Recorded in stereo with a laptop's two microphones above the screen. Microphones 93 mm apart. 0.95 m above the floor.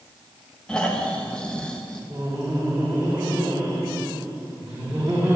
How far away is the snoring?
About 1.3 m.